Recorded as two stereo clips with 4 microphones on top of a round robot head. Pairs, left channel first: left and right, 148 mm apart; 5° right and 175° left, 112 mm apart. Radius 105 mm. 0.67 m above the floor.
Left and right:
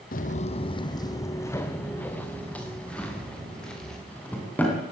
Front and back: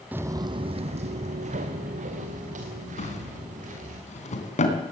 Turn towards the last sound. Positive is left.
turn(degrees=10)